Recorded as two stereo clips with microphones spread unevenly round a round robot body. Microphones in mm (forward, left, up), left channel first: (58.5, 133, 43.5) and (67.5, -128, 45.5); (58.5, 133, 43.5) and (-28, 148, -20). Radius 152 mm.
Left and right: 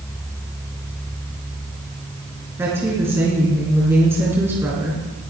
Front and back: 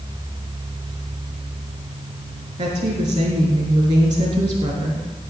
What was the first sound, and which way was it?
A woman speaking, 170° right.